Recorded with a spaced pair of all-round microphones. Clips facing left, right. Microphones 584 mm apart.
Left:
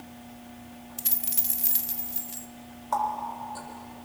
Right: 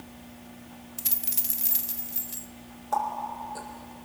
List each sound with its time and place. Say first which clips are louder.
1.0 s a dropped coin: left 1 dB; 10° right (ahead or behind), 1.1 m
2.9 s a running tap: even; 25° left (ahead or behind), 4 m